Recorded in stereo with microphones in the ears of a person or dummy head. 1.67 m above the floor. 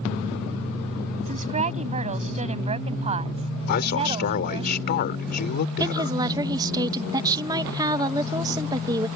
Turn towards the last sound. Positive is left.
turn(degrees=-20)  # may be behind; listen again after turning